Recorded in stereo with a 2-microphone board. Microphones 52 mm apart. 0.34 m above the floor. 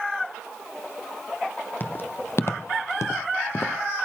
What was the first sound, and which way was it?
Footsteps, 40° left (ahead or behind).